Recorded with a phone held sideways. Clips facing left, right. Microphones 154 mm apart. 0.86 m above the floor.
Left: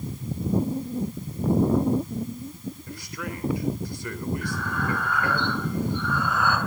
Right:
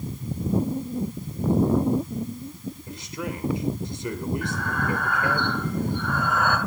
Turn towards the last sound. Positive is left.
turn(degrees=-50)  # may be behind; listen again after turning